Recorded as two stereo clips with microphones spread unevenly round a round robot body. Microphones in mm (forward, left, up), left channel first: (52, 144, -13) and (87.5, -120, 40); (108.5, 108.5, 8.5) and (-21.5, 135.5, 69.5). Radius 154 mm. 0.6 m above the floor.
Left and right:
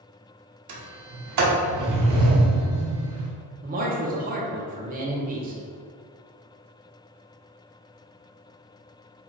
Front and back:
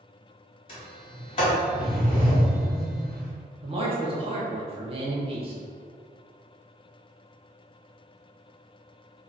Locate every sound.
0.7 s a sliding door: 60° right, 1.0 m
3.6 s a man speaking: 135° right, 0.8 m